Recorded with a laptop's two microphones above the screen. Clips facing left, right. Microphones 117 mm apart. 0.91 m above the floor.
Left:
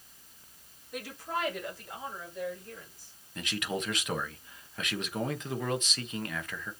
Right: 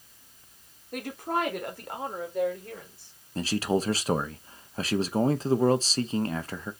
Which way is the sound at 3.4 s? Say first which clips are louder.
Right 8 dB; 35° right (ahead or behind).